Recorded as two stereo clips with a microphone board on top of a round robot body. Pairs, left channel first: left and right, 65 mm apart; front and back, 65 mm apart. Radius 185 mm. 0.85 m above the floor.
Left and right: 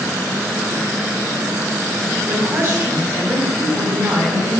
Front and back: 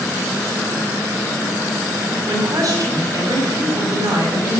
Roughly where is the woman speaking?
Behind right.